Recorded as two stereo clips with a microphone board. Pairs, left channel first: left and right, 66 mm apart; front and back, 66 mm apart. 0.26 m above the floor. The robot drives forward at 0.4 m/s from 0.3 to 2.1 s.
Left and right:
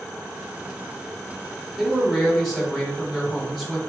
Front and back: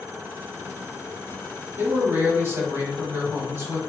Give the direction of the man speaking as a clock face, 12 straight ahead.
6 o'clock.